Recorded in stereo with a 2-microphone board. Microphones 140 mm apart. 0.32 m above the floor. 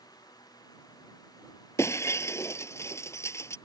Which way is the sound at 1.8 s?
20° left (ahead or behind).